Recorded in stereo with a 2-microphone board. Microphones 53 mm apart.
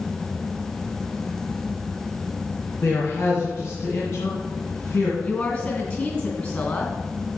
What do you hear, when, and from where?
2.8 s a man speaking: 55° left (ahead or behind), 2.5 m
5.2 s a woman speaking: 35° left (ahead or behind), 2 m